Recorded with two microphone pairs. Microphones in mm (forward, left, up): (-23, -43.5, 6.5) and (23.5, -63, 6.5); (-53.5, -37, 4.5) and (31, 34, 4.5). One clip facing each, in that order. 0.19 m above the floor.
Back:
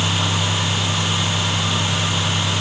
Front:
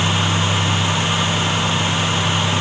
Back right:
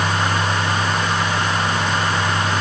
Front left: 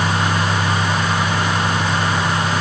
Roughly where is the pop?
No pop in this recording.